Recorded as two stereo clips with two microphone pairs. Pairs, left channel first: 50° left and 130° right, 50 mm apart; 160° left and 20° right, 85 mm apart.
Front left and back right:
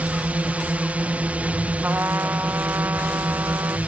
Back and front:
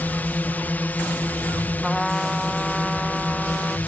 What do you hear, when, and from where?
0.0 s a drone: 150° right
1.8 s a trumpet: 110° right